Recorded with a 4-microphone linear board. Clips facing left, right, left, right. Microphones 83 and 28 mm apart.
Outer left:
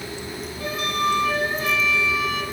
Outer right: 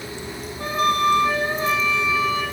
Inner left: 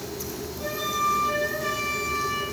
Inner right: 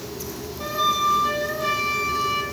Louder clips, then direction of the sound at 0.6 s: Outer right 5 dB, inner right 5 dB; 30° right (ahead or behind).